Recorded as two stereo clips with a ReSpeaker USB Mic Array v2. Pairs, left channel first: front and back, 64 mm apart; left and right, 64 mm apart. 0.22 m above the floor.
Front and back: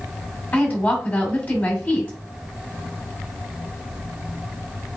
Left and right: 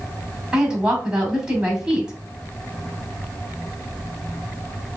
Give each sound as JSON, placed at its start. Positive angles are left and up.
{"t": 0.5, "sound": "a woman speaking", "azimuth_deg": -25, "distance_m": 1.5}